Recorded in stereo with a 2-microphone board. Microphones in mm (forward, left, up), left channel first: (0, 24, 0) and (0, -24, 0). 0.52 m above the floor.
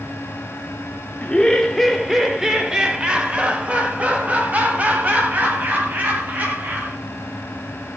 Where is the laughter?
20° left (ahead or behind), 0.8 m; by 7.0 s 40° right (ahead or behind), 3.5 m.